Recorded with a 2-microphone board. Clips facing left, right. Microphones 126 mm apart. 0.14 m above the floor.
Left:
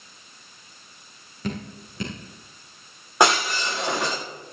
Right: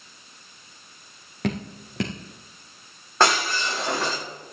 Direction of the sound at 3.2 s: 15° left (ahead or behind).